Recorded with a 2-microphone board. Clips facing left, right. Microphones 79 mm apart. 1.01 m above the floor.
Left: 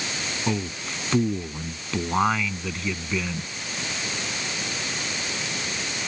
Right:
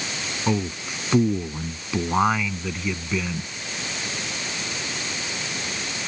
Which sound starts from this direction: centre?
A man speaking, at 0.5 s.